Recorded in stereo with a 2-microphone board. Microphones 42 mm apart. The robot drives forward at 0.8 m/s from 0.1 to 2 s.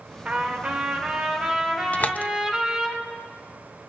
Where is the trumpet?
35° right (ahead or behind), 1.7 m; by 2.9 s 20° right (ahead or behind), 3 m.